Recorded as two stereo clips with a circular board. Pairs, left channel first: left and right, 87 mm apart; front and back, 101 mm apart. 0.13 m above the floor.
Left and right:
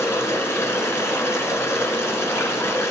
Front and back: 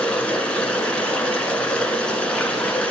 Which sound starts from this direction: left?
Running water, at 0.0 s.